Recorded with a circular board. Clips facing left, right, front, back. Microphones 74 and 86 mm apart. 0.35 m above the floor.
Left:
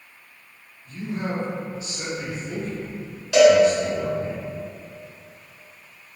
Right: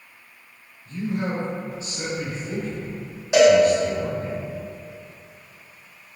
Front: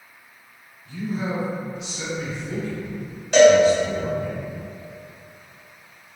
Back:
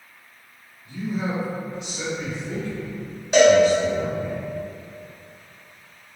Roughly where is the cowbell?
Behind right.